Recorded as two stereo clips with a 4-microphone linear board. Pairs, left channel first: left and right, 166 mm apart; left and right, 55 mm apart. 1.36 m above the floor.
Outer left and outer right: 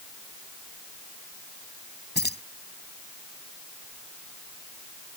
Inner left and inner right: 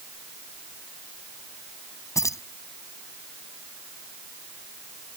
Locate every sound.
2.1 s keys jangling: 85° left